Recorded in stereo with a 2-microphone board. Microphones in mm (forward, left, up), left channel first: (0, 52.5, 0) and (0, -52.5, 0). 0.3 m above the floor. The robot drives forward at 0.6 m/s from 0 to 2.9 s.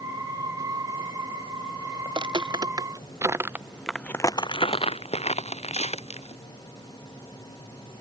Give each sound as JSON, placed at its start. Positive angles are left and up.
{"t": 2.0, "sound": "footsteps", "side_deg": -50}